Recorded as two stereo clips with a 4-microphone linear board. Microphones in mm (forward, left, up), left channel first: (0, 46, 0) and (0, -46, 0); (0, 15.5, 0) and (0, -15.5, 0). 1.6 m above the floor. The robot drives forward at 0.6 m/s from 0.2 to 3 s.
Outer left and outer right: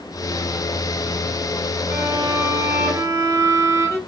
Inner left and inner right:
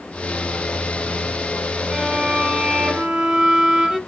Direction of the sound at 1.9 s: 25° right (ahead or behind).